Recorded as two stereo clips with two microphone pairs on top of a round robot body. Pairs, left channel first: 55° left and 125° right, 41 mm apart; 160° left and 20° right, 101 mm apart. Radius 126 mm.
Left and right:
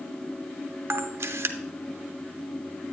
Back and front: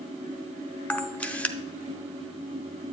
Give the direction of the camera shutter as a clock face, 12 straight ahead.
4 o'clock.